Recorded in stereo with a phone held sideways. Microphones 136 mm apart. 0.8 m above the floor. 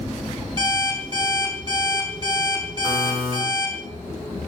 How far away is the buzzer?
About 5 m.